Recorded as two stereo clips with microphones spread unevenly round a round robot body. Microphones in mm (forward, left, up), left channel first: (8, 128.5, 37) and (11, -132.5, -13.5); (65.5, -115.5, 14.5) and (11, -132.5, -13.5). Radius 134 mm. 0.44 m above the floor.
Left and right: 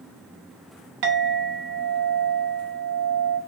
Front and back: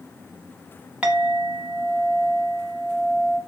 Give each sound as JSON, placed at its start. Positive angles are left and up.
{"t": 1.0, "sound": "a clink", "azimuth_deg": -115, "distance_m": 0.8}